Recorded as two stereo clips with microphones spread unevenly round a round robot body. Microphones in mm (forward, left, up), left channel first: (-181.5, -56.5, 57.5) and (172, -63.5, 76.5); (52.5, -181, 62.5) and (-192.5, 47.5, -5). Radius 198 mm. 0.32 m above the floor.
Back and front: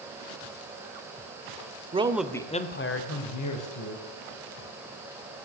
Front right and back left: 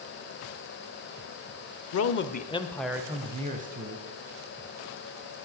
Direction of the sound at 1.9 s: 70° right.